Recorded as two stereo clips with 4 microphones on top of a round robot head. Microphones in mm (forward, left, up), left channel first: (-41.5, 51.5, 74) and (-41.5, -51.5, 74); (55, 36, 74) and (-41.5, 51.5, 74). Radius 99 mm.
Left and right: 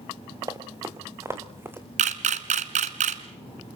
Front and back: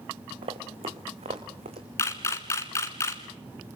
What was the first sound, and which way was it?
Running footsteps, 145° right.